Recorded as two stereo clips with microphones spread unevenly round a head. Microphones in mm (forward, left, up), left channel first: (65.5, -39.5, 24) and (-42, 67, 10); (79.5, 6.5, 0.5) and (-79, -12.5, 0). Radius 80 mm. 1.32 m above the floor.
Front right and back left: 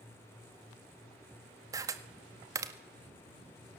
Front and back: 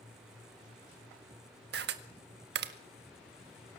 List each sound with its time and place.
1.7 s a camera shutter: 155° right, 1.6 m